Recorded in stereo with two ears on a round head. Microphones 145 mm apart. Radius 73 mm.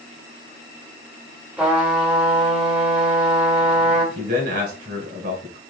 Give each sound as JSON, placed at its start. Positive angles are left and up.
{"t": 1.6, "sound": "a trumpet", "side_deg": -5, "distance_m": 1.4}
{"t": 4.2, "sound": "a man speaking", "side_deg": -50, "distance_m": 2.0}